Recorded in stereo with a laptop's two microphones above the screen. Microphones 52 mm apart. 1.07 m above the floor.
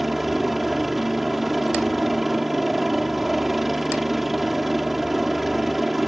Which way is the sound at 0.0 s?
5° right (ahead or behind).